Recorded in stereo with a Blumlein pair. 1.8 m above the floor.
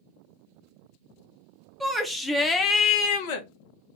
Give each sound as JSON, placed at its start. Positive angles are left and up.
{"t": 1.8, "sound": "a shout", "azimuth_deg": -5, "distance_m": 1.2}